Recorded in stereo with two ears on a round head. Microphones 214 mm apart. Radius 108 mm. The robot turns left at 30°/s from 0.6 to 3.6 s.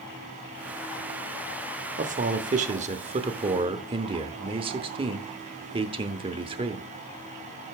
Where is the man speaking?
85° right, 0.8 m; by 6.9 s 135° right, 0.8 m.